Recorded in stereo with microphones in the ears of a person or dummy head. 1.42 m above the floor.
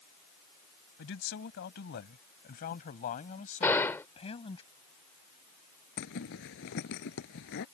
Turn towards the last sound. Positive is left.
turn(degrees=70)  # may be behind; listen again after turning